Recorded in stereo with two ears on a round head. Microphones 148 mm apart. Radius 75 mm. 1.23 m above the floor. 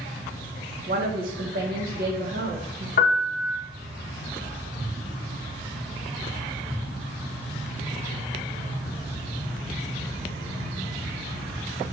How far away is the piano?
About 1.4 m.